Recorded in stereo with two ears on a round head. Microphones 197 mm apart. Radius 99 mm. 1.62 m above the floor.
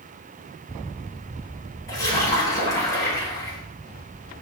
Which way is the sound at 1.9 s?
15° left (ahead or behind).